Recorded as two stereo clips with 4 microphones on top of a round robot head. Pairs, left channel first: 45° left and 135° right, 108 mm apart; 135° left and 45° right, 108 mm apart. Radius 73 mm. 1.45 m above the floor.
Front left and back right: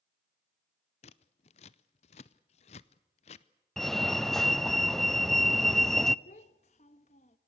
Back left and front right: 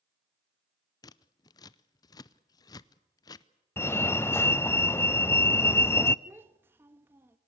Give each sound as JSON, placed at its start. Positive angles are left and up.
{"t": 1.0, "sound": "scissors", "azimuth_deg": 80, "distance_m": 0.6}
{"t": 3.8, "sound": "a fire alarm", "azimuth_deg": 125, "distance_m": 0.6}
{"t": 6.2, "sound": "a child speaking", "azimuth_deg": 25, "distance_m": 1.0}